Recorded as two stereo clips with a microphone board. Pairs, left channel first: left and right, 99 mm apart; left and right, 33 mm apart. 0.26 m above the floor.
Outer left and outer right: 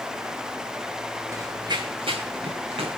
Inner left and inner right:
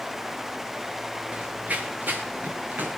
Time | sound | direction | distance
1.3 | running footsteps | 30° right (ahead or behind) | 1.3 m